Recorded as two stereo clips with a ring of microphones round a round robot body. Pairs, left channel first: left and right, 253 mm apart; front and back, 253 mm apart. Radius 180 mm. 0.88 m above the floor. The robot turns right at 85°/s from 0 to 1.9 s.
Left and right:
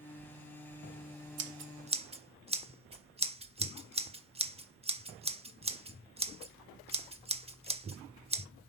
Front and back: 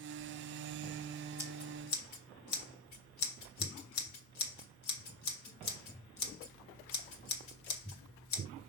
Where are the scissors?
65° right, 1.2 m; by 8.5 s 20° right, 1.2 m.